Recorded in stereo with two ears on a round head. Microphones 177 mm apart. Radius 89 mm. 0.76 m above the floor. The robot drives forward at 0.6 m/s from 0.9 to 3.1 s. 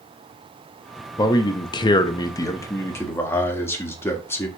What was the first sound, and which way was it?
A man speaking, 20° left (ahead or behind).